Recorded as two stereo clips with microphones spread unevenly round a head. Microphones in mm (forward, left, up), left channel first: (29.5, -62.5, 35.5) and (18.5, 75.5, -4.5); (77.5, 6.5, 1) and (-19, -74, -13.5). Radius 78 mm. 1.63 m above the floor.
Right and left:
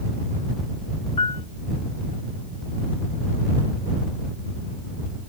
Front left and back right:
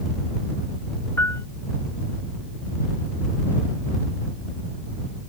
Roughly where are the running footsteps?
I don't hear running footsteps.